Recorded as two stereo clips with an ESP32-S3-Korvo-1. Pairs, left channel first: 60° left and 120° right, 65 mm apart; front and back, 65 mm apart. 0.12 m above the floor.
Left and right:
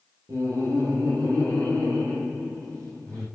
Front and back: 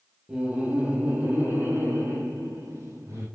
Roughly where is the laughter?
Right.